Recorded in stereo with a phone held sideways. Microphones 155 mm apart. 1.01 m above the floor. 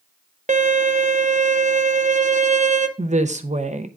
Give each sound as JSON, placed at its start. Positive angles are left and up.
{"t": 0.5, "sound": "a violin", "side_deg": -55, "distance_m": 0.7}
{"t": 3.0, "sound": "a woman speaking", "side_deg": -55, "distance_m": 0.7}